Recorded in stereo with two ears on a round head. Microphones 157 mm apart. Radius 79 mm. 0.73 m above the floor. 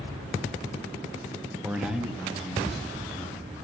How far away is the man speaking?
About 0.6 m.